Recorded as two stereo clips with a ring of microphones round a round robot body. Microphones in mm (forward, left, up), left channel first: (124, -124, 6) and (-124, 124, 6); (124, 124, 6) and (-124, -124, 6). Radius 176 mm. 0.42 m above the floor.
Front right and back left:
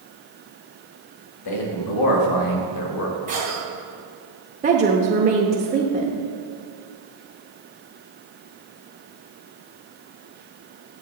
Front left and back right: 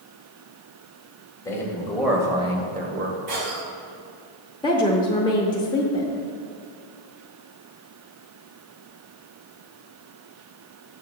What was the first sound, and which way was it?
A man speaking, 35° right.